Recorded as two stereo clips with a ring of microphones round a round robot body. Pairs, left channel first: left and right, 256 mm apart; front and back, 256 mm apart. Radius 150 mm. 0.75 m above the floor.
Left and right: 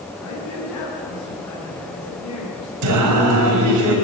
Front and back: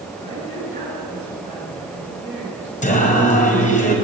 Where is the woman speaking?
75° left, 9.5 m.